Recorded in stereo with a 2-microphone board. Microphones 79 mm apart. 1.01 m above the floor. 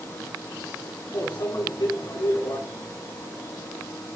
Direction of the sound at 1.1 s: 70° left (ahead or behind).